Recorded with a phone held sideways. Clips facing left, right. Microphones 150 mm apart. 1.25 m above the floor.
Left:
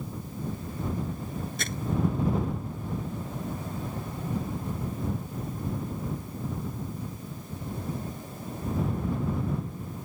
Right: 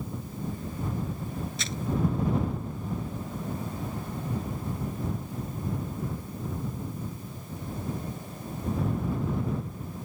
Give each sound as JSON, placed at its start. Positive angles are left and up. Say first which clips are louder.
{"t": 1.6, "sound": "crumpling", "louder": "left 1 dB", "side_deg": 55}